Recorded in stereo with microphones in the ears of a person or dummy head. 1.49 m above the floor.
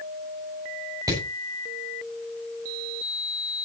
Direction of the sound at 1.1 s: 20° right (ahead or behind).